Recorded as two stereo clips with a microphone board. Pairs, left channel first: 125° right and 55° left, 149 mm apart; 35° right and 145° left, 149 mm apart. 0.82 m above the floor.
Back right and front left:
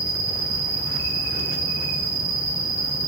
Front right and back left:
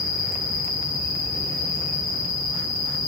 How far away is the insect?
About 1.9 m.